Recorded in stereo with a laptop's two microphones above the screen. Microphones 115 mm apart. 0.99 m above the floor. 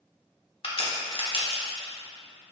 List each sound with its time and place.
0.6 s a crack: 55° left (ahead or behind), 0.8 m